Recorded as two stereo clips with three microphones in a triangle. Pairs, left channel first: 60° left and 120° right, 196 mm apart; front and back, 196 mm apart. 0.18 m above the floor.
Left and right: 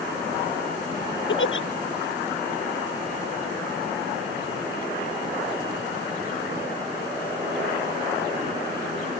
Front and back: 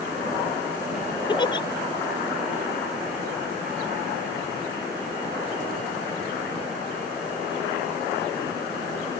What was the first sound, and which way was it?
A giggle, 65° left.